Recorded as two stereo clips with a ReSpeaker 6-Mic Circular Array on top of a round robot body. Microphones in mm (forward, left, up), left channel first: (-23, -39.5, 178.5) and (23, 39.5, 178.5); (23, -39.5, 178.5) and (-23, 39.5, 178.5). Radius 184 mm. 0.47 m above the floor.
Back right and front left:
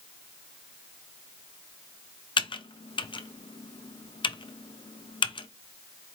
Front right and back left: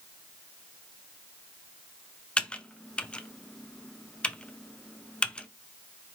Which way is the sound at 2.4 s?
135° right.